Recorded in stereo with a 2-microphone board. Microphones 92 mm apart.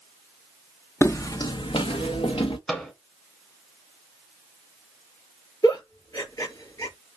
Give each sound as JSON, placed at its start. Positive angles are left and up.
{"t": 1.0, "sound": "footsteps", "side_deg": 30, "distance_m": 0.7}
{"t": 2.7, "sound": "a microwave", "side_deg": 10, "distance_m": 1.0}
{"t": 5.6, "sound": "a giggle", "side_deg": 45, "distance_m": 3.5}